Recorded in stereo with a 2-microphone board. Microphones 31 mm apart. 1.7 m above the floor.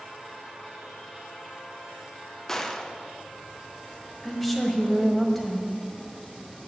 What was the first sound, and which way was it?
A gunshot, 15° left (ahead or behind).